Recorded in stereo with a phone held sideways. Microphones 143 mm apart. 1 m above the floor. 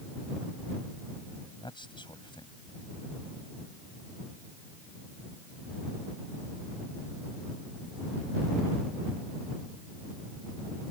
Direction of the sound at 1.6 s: 35° left (ahead or behind).